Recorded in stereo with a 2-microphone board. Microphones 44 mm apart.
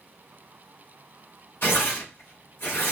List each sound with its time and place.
1.6 s tearing paper: 50° left (ahead or behind), 3 m